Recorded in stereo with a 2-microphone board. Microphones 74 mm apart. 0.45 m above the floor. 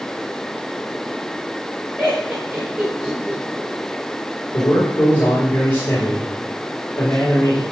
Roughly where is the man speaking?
Left.